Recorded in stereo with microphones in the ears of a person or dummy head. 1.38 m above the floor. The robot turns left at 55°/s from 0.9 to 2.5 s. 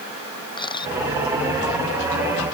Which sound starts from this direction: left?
A camera shutter, at 0.6 s.